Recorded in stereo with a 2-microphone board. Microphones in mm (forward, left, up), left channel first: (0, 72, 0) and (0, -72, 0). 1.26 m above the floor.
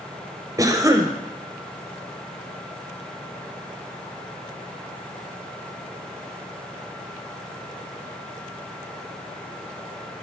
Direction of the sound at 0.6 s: 25° right (ahead or behind).